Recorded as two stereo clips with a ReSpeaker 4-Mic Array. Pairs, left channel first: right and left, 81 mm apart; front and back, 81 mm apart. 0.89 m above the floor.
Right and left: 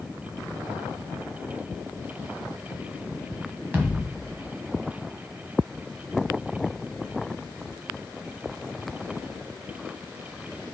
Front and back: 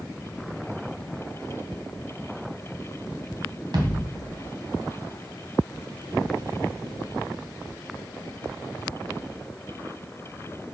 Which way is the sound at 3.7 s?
155° left.